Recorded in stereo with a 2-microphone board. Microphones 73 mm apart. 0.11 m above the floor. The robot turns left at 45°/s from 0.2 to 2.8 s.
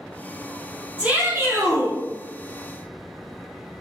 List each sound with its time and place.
1.0 s a shout: 15° right, 3.5 m; by 2.0 s 60° right, 3.5 m